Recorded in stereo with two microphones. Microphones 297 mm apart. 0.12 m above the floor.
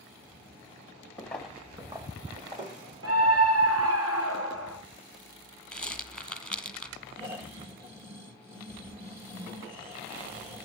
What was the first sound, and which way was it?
Footsteps, 5° left (ahead or behind).